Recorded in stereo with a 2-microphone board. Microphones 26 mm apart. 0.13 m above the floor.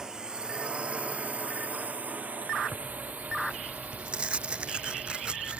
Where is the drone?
25° right (ahead or behind); by 5.6 s 75° right (ahead or behind).